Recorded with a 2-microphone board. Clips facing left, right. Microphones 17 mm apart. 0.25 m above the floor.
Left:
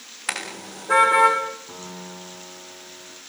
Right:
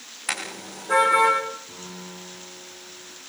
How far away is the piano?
About 7.5 m.